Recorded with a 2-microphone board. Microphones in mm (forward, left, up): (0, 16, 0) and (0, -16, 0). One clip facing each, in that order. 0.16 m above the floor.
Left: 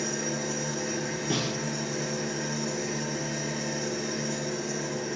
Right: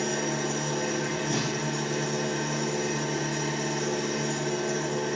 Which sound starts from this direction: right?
An engine running, at 0.0 s.